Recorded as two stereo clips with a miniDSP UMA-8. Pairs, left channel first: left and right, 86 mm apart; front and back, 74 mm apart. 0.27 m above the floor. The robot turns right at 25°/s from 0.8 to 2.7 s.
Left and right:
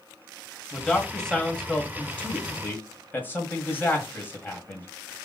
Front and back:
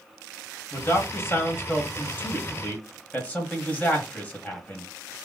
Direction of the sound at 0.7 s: Straight ahead.